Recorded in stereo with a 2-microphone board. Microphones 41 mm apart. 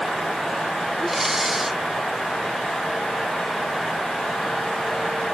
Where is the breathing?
5° right (ahead or behind).